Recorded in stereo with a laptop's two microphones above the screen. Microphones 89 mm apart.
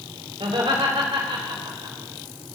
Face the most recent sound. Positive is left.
turn(degrees=-80)